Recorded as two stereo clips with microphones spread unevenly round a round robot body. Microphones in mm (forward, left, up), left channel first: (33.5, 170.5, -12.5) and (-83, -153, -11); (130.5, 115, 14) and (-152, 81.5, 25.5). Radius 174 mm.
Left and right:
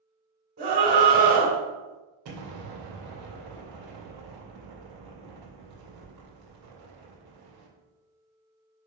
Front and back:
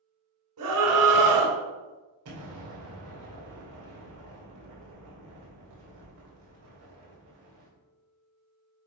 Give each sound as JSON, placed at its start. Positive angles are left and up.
{"t": 0.6, "sound": "a scream", "azimuth_deg": -175, "distance_m": 2.5}
{"t": 2.2, "sound": "an explosion", "azimuth_deg": -135, "distance_m": 2.5}